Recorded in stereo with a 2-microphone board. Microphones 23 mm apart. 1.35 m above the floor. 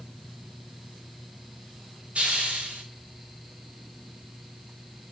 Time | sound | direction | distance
2.1 | a hiss | 65° right (ahead or behind) | 2.5 m